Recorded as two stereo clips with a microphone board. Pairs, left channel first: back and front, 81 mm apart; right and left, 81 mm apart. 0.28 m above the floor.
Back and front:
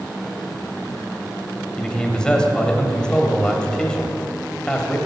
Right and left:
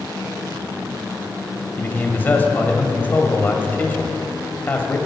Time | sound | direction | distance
1.8 | a man speaking | 115° right | 1.0 m